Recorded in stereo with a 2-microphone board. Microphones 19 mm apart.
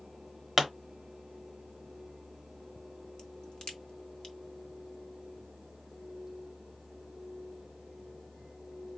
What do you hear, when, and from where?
0.6 s a pop: 10° right (ahead or behind), 0.9 m
3.2 s a crack: 45° left (ahead or behind), 1.2 m